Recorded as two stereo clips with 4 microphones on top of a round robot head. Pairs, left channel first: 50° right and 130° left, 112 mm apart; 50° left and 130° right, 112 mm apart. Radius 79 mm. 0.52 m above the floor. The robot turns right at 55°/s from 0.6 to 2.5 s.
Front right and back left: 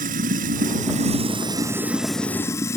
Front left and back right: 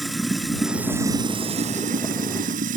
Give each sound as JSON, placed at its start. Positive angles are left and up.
{"t": 0.0, "sound": "running water", "azimuth_deg": 140}